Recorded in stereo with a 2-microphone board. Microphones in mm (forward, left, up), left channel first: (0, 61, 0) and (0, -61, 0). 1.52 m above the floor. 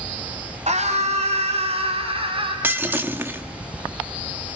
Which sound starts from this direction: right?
A scream, at 0.7 s.